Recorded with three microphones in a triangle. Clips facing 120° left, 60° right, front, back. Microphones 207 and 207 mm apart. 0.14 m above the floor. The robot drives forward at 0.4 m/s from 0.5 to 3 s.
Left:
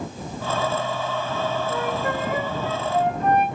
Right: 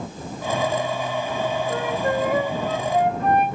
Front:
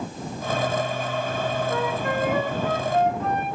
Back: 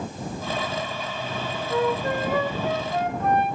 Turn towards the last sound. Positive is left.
turn(degrees=-120)